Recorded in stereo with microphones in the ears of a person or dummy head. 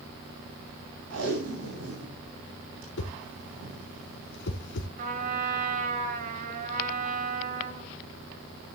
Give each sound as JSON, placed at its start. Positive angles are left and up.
{"t": 1.1, "sound": "tape being pulled", "side_deg": -80, "distance_m": 8.0}
{"t": 3.0, "sound": "a whoosh", "side_deg": 70, "distance_m": 2.5}
{"t": 5.0, "sound": "a trumpet", "side_deg": -50, "distance_m": 6.0}